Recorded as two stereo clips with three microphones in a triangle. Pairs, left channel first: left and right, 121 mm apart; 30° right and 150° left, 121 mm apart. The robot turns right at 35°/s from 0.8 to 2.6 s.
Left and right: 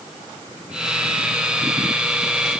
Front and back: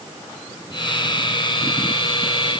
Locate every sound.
Only background noise.